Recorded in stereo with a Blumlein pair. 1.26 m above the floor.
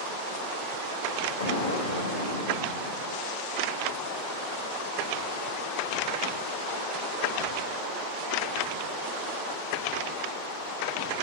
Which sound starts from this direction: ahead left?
An explosion, at 1.4 s.